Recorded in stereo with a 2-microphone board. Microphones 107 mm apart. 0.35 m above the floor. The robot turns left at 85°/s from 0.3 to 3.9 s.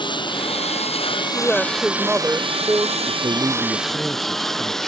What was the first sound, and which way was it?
A lawn mower, 50° left (ahead or behind).